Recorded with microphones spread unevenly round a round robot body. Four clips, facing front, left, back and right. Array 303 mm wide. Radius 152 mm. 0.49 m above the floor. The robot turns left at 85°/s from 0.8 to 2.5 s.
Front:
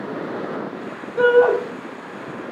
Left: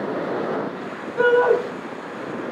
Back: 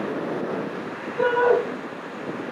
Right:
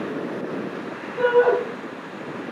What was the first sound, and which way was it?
A shout, 20° left.